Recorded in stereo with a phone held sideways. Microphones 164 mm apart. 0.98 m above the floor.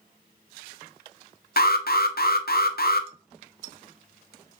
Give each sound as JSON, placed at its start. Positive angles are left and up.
{"t": 1.6, "sound": "an alarm", "side_deg": 70, "distance_m": 0.7}